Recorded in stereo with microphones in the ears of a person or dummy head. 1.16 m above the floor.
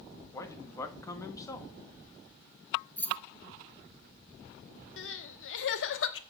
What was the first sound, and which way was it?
A man speaking, 15° left (ahead or behind).